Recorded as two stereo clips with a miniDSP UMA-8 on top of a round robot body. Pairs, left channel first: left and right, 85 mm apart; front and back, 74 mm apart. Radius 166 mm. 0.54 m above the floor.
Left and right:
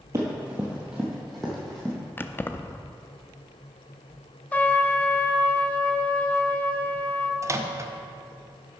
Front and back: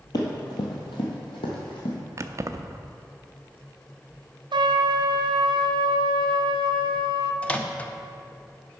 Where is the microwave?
60° right, 0.9 m.